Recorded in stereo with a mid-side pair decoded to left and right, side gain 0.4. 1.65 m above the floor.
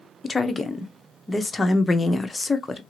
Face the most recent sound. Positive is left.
turn(degrees=35)